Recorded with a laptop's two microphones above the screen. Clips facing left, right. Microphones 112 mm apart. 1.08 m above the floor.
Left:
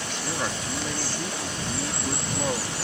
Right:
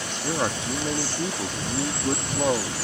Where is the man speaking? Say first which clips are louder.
Right 5 dB; 25° right (ahead or behind).